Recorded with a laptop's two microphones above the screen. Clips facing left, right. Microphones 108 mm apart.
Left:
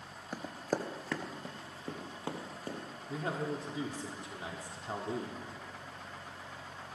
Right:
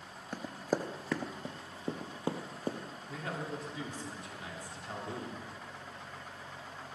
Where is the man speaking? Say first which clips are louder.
Left 4 dB; 30° left (ahead or behind), 2.5 m.